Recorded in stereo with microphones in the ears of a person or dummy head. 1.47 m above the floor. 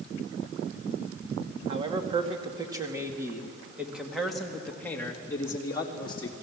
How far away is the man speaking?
About 2.5 m.